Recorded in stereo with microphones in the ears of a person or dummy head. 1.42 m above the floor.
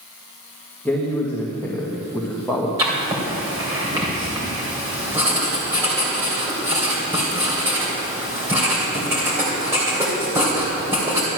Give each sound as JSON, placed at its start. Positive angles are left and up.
{"t": 0.8, "sound": "a man speaking", "side_deg": 10, "distance_m": 1.6}
{"t": 2.8, "sound": "writing", "side_deg": -15, "distance_m": 3.0}